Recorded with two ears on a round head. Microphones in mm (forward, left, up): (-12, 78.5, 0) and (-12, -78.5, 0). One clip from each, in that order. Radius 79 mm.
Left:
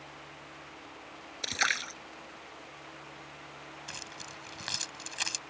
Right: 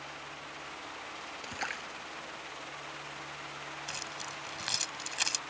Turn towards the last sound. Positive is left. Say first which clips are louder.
# right 2 dB
turn(degrees=-15)  # may be behind; listen again after turning